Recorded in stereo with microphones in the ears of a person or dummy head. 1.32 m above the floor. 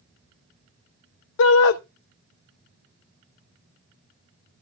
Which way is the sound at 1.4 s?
65° left (ahead or behind).